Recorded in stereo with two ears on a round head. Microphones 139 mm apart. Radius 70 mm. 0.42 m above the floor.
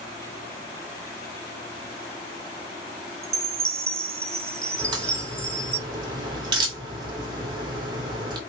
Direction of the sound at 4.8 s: 30° right (ahead or behind).